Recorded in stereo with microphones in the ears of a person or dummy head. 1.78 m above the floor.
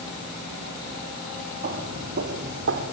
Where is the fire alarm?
I don't hear a fire alarm.